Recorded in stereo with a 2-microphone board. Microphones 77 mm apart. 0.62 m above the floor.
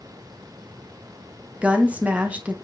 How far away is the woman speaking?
About 0.6 m.